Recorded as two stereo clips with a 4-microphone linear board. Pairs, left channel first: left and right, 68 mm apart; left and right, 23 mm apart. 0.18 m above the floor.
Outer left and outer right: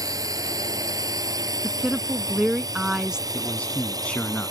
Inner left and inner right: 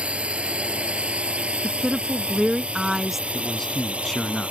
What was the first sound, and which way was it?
A drone, 65° right (ahead or behind).